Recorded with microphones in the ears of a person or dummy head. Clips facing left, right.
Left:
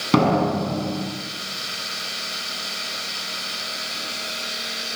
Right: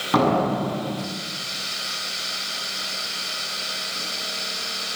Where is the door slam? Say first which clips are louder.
Left 2 dB; 40° left (ahead or behind), 8.5 m.